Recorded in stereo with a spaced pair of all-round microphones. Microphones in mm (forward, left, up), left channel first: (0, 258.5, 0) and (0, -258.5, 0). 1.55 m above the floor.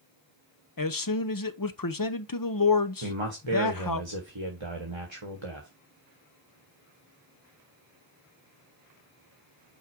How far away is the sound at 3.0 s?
About 1.4 m.